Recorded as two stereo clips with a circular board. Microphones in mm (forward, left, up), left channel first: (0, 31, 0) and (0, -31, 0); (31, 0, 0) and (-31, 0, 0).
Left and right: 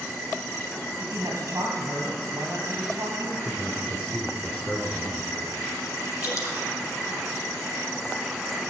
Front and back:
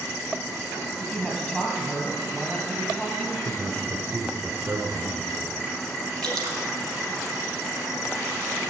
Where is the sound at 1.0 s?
65° right, 3.5 m.